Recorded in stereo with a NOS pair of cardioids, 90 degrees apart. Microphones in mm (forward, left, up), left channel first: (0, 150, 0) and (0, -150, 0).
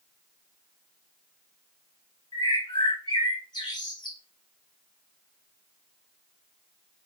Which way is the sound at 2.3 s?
15° left.